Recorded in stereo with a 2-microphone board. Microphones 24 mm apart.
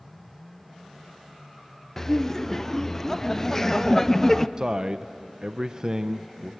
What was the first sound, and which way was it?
Laughter, 15° left (ahead or behind).